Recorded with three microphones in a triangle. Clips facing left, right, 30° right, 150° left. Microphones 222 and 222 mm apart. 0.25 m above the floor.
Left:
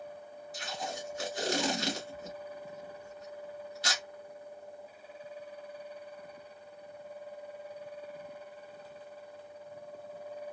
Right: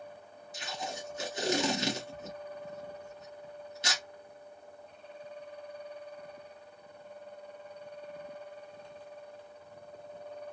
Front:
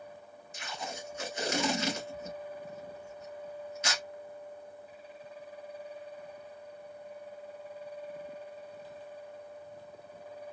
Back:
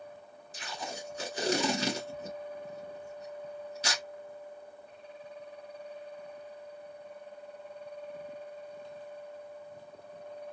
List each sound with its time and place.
0.5 s tape being pulled: 155° right, 2 m